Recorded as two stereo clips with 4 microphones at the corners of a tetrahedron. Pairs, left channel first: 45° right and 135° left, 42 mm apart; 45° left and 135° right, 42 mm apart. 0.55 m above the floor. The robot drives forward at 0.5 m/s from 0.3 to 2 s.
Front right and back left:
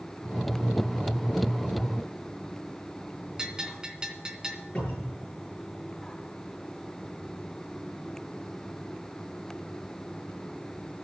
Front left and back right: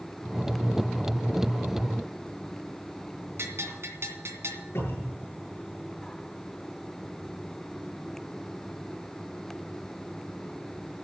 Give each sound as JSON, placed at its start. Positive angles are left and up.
{"t": 3.4, "sound": "a bell", "azimuth_deg": -150, "distance_m": 2.5}
{"t": 4.8, "sound": "a cupboard door", "azimuth_deg": 25, "distance_m": 9.0}